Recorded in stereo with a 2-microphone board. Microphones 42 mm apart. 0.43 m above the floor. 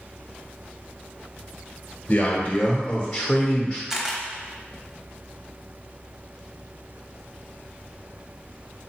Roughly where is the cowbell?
I don't hear a cowbell.